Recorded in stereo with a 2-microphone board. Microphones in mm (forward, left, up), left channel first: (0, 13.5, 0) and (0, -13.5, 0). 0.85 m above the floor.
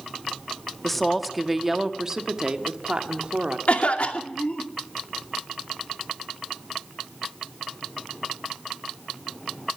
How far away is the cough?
About 2 m.